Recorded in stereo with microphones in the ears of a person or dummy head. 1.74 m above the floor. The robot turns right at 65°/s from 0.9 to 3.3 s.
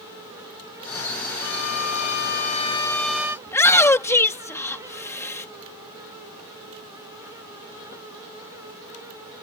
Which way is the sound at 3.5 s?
15° left (ahead or behind).